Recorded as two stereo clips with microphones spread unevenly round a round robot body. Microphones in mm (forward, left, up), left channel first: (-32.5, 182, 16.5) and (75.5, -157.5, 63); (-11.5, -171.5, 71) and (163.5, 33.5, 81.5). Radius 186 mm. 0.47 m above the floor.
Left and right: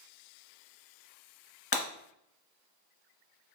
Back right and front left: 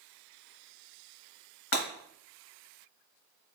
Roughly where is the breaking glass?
Behind.